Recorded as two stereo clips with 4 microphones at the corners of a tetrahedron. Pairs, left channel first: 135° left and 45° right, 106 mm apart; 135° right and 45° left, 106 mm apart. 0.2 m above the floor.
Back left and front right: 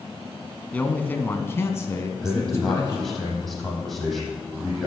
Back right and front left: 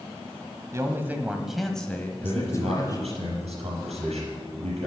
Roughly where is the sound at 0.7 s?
Left.